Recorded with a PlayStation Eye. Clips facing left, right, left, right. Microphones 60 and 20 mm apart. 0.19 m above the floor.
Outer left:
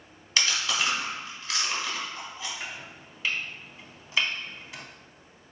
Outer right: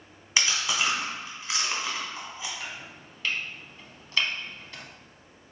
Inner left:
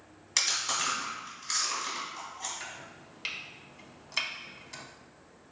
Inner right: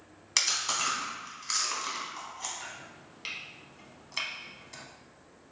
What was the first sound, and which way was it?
Chewing, 15° right (ahead or behind).